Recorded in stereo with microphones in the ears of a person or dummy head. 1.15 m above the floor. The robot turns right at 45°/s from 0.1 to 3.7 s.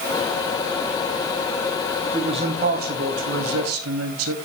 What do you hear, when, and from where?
2.1 s a man speaking: 165° right, 2.5 m; by 4.3 s 95° right, 2.5 m